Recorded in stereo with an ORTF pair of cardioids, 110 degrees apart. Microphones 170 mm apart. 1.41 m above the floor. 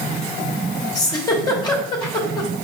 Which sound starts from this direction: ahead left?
A giggle, at 0.9 s.